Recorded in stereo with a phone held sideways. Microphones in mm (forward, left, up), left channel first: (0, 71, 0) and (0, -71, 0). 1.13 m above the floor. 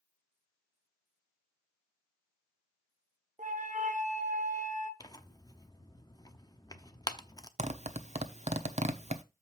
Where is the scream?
I don't hear a scream.